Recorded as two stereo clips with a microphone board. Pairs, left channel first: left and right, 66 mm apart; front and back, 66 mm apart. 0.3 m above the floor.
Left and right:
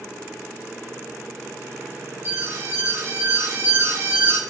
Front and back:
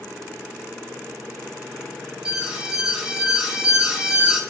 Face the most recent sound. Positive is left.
turn(degrees=-110)